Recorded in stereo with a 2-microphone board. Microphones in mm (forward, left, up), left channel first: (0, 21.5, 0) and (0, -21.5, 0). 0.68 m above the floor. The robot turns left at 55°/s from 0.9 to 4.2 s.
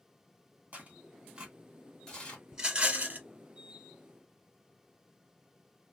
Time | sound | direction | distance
0.7 | tearing paper | 40° right (ahead or behind) | 1.8 m
2.5 | a rattle | 15° right | 1.0 m